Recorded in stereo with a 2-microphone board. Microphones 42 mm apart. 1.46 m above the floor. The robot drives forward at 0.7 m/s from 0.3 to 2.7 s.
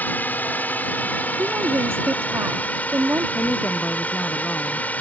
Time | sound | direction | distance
0.0 | a drone | 40° left (ahead or behind) | ?
1.4 | a woman speaking | 55° right (ahead or behind) | ?
3.4 | a woman speaking | 40° left (ahead or behind) | ?